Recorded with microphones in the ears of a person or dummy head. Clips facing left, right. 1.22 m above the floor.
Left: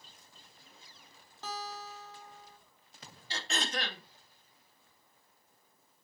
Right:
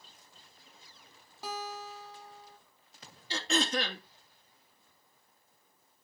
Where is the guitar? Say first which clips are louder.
Right 2 dB; 10° right (ahead or behind), 2.5 m.